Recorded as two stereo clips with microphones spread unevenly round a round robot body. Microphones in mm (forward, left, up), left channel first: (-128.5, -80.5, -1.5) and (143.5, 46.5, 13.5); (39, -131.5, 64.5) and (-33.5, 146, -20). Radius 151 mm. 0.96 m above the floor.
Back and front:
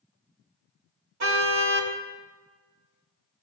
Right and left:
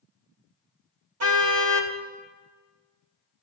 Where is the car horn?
65° left, 2.5 m.